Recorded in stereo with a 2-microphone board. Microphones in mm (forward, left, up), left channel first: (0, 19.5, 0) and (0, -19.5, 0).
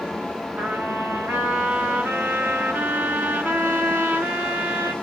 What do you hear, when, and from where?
0.6 s a trumpet: 85° right, 1.4 m